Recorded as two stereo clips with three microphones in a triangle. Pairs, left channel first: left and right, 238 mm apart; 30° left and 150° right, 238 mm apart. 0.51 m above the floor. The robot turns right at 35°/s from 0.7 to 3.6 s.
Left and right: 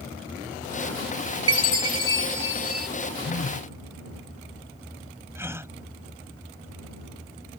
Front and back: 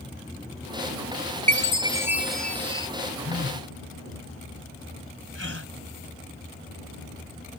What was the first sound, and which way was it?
A chime, 90° right.